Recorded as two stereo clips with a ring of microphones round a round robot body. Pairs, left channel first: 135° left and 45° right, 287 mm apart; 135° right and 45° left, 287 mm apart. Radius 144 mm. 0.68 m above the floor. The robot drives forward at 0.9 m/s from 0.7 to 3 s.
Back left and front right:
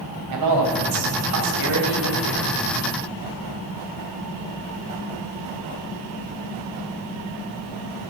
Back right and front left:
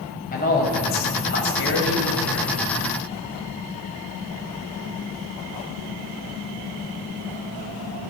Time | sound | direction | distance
0.3 | a man speaking | 75° right | 4 m